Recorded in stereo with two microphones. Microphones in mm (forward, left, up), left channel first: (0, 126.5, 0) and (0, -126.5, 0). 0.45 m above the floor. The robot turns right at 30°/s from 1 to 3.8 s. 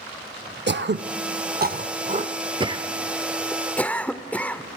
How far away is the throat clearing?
About 0.6 m.